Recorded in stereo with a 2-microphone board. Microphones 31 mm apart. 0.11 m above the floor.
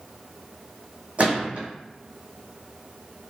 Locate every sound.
1.2 s a gunshot: 50° right (ahead or behind), 1.3 m